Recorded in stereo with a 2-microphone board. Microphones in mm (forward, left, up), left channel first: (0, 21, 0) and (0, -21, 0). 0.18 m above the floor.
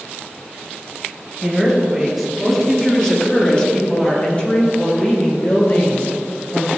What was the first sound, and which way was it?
A woman speaking, 5° right (ahead or behind).